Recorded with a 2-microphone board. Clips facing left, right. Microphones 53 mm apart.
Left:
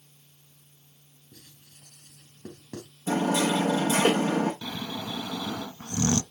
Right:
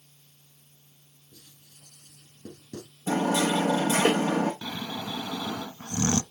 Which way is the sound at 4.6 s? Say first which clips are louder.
Even; 25° right (ahead or behind).